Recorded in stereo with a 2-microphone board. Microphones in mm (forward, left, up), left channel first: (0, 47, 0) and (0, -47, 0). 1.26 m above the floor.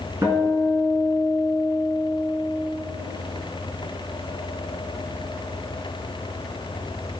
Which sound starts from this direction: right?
A guitar, at 0.2 s.